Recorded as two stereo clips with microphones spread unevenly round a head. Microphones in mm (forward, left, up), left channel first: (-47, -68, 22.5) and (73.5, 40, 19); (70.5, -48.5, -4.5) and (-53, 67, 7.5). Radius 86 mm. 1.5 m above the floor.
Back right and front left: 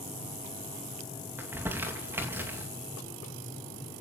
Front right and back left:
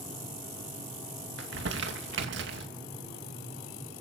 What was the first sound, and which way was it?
Crumpling, 120° left.